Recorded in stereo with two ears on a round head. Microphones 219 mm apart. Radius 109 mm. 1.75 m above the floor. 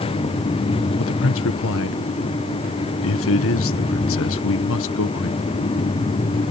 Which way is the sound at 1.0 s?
60° left (ahead or behind).